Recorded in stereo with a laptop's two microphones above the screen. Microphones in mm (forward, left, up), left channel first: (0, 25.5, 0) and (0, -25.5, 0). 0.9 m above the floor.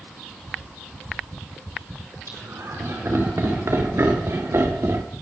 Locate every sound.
2.3 s laughter: 85° right, 5 m; by 5.0 s 70° right (ahead or behind), 2.0 m